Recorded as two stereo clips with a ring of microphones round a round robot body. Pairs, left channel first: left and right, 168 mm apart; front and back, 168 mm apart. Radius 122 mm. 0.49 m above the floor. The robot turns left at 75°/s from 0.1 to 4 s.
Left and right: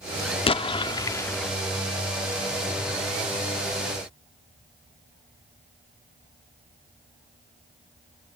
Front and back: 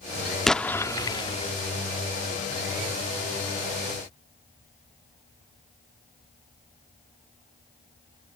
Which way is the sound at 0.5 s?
85° left.